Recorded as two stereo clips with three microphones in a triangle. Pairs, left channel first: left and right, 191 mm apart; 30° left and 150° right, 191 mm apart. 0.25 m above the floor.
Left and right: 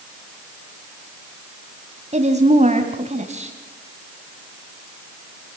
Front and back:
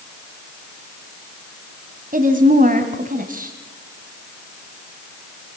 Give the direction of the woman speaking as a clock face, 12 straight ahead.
4 o'clock.